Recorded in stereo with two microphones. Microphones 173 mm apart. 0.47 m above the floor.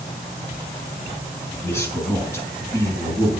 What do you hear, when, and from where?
1.6 s a man speaking: 15° left (ahead or behind), 5 m